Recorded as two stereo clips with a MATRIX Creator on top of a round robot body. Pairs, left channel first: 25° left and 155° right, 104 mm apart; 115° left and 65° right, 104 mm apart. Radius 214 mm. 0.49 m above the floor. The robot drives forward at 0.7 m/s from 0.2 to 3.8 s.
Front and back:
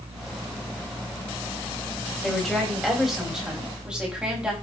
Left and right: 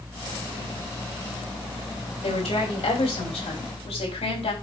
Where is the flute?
I don't hear a flute.